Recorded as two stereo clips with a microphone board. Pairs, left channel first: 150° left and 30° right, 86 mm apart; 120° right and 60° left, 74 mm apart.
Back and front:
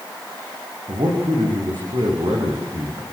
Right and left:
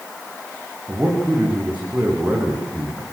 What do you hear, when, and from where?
0.9 s a man speaking: 10° right, 7.5 m